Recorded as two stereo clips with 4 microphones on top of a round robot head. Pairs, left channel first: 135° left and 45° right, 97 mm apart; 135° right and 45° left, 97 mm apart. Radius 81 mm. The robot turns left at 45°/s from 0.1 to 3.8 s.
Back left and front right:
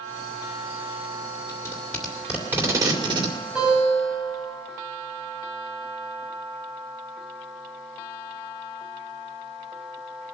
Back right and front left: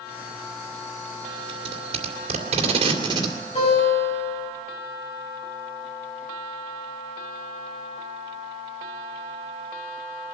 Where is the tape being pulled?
70° left, 2.5 m; by 3.4 s 10° right, 2.5 m.